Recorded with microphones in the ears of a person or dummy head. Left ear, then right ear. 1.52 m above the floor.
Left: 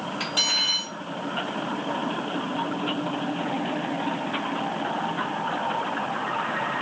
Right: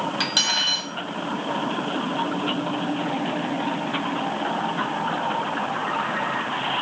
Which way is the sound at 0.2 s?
35° right (ahead or behind).